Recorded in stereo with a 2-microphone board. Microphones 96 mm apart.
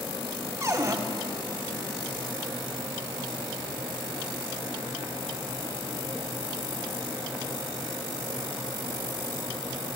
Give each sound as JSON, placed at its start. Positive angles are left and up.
{"t": 0.6, "sound": "a cupboard door", "side_deg": -30, "distance_m": 0.9}